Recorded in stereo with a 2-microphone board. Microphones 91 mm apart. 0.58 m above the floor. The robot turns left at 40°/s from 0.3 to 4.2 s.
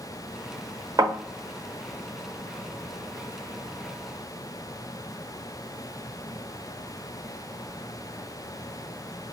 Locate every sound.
1.0 s a thud: 40° right (ahead or behind), 0.9 m; by 1.1 s 45° right (ahead or behind), 0.9 m